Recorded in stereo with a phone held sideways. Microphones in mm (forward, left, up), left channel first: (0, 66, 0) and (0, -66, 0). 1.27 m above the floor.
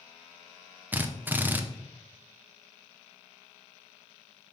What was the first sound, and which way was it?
A drill, 15° right (ahead or behind).